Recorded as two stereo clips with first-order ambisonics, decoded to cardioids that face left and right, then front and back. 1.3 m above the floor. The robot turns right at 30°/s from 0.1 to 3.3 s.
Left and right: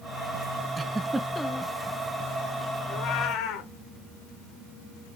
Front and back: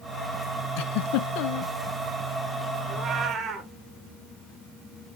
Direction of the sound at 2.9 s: 105° left.